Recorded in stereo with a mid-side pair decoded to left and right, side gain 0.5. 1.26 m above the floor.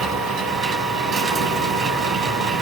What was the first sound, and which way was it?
A machine running, 60° right.